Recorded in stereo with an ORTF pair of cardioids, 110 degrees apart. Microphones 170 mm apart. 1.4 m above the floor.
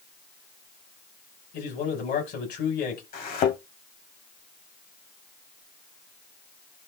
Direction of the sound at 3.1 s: 65° left.